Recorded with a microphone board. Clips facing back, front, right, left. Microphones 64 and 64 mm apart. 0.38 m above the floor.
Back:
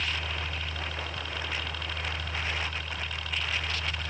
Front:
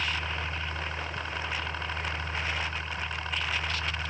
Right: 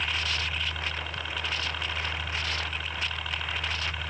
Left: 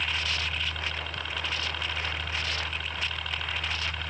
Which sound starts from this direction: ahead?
A helicopter, at 0.0 s.